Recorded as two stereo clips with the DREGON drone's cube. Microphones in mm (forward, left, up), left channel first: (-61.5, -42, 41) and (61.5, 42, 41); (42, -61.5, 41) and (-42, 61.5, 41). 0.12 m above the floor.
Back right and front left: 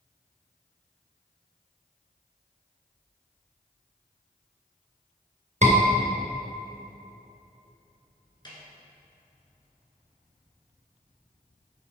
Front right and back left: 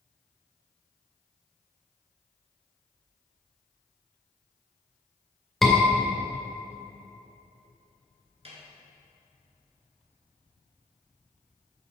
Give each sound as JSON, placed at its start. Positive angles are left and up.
{"t": 5.6, "sound": "a scream", "azimuth_deg": 30, "distance_m": 2.0}
{"t": 8.4, "sound": "a snare drum", "azimuth_deg": 160, "distance_m": 1.8}